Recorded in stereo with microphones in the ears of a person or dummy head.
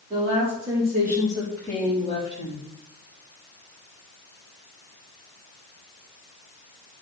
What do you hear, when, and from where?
0.1 s a woman speaking: 35° right (ahead or behind), 3.5 m; by 2.7 s 40° left (ahead or behind), 2.5 m